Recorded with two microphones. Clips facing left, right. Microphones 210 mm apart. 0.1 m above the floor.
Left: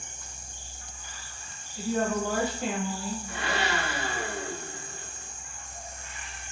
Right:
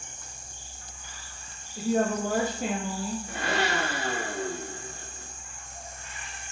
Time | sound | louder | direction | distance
1.8 | a woman speaking | right 2 dB | 45° right (ahead or behind) | 3 m
3.3 | a blender | right 2 dB | 45° right (ahead or behind) | 3 m